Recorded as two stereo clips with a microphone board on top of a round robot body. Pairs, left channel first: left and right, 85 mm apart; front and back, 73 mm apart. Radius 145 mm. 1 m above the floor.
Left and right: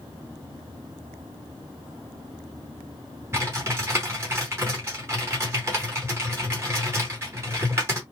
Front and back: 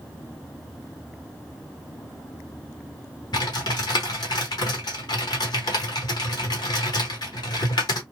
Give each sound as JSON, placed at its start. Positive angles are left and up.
{"t": 3.3, "sound": "typing on a keyboard", "azimuth_deg": -25, "distance_m": 1.0}